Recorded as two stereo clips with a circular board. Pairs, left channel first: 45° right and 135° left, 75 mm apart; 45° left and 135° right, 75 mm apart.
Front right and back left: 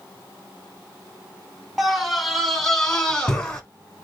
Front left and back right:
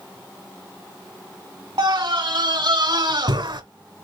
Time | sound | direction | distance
1.8 | a scream | 135° right | 3 m